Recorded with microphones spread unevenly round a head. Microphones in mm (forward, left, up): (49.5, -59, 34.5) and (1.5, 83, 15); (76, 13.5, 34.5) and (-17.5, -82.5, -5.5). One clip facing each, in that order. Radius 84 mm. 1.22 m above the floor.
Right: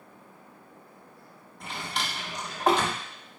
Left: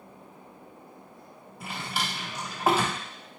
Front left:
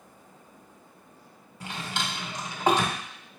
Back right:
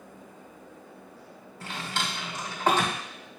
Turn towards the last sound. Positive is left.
turn(degrees=15)